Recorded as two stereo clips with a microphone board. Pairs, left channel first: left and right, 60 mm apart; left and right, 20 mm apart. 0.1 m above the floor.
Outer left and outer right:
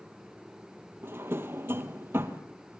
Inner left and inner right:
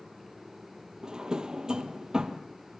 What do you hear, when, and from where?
1.0 s a drawer: 40° right (ahead or behind), 1.6 m